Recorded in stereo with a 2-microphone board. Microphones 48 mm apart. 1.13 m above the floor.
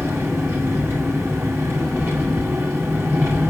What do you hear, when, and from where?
0.0 s an engine running: 60° right (ahead or behind), 7.5 m